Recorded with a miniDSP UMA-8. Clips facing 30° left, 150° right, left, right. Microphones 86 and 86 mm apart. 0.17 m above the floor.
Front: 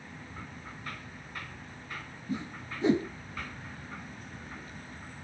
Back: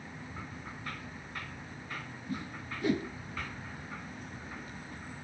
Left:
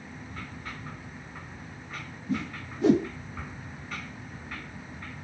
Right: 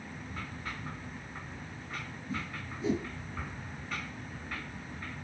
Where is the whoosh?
95° left, 0.5 m.